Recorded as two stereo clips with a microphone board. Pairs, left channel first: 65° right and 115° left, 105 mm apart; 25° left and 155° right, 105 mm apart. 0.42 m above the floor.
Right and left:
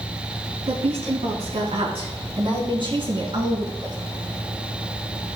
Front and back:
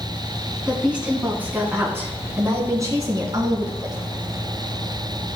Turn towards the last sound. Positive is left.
turn(degrees=155)